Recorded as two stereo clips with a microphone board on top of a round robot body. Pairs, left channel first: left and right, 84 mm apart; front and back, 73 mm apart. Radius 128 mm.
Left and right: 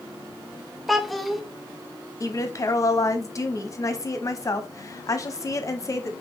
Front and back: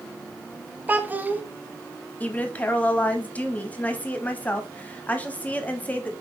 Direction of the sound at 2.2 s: 65° left.